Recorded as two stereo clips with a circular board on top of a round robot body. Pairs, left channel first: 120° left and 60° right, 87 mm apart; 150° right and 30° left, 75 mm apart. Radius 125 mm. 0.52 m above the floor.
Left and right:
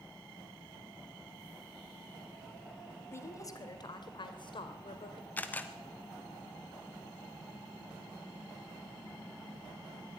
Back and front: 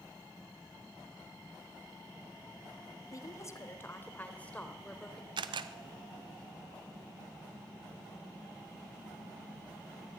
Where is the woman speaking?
175° left, 2 m; by 5.3 s 125° left, 3.5 m.